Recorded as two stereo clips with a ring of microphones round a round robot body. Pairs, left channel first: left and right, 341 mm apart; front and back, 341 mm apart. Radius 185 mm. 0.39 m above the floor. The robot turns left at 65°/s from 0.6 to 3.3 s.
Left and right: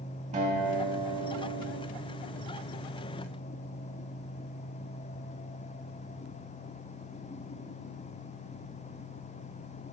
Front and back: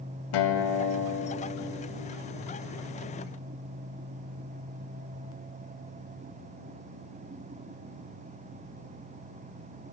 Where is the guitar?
15° right, 0.7 m; by 1.9 s 100° right, 0.7 m.